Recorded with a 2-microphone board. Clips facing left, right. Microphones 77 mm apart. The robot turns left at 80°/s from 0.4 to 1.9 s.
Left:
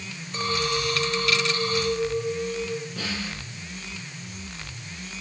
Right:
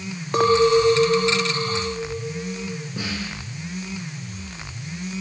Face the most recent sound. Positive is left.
turn(degrees=-20)  # may be behind; listen again after turning